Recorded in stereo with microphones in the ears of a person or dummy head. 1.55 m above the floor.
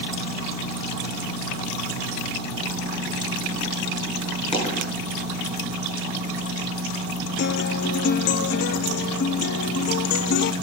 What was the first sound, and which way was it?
A dropped coin, 40° left (ahead or behind).